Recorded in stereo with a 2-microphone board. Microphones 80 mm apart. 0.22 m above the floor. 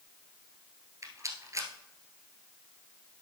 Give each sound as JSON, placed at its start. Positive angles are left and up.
{"t": 1.0, "sound": "a rattle", "side_deg": -40, "distance_m": 1.2}